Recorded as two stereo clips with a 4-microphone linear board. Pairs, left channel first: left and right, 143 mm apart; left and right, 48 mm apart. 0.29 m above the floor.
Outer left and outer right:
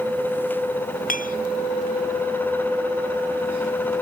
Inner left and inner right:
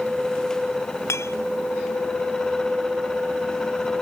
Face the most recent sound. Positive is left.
turn(degrees=70)  # may be behind; listen again after turning